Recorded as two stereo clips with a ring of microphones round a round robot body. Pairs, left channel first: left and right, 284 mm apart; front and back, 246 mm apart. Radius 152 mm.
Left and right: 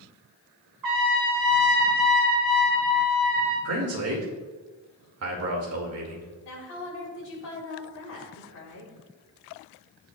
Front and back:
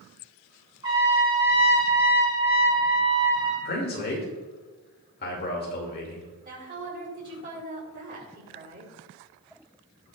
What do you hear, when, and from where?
0.8 s a trumpet: 105° right, 3.5 m
3.6 s a man speaking: 55° right, 2.5 m
6.5 s a woman speaking: 130° left, 5 m